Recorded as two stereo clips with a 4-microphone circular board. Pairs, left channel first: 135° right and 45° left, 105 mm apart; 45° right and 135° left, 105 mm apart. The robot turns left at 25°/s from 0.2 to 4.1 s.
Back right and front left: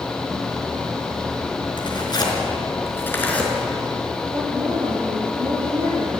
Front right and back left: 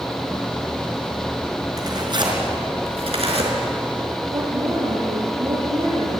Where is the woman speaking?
90° left, 9 m.